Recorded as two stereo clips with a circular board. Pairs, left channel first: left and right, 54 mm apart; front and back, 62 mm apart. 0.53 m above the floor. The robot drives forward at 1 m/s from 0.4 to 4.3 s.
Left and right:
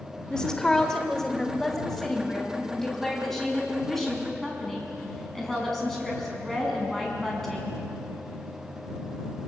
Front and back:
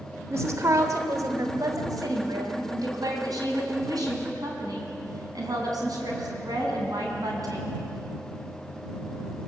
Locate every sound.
0.3 s a woman speaking: 165° left, 1.9 m; by 7.8 s 175° left, 5.5 m